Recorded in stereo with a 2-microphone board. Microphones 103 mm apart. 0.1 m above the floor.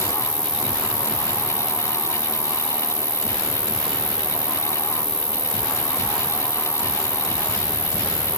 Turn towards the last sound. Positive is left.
turn(degrees=-70)  # may be behind; listen again after turning